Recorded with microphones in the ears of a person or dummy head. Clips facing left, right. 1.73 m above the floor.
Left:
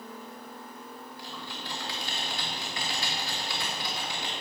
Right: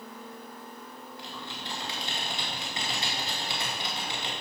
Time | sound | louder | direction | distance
1.2 | typing on a keyboard | right 1 dB | 20° right (ahead or behind) | 1.9 m